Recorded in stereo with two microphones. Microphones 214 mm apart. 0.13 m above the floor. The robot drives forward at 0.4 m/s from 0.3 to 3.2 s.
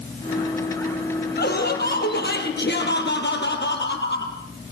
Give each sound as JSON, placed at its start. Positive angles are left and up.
{"t": 1.4, "sound": "laughter", "side_deg": 50, "distance_m": 5.0}